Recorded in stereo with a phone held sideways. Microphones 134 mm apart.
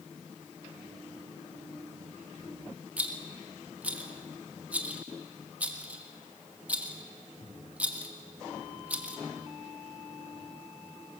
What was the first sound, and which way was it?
A rattle, 10° right (ahead or behind).